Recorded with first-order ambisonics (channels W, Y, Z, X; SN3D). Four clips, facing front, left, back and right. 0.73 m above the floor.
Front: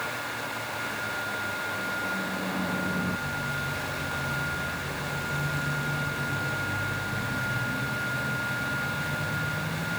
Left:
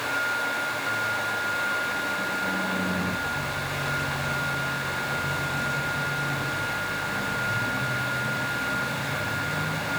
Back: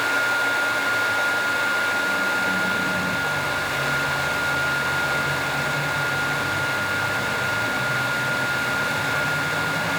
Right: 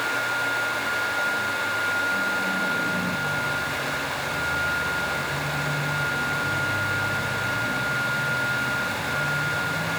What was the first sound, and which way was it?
Only background noise.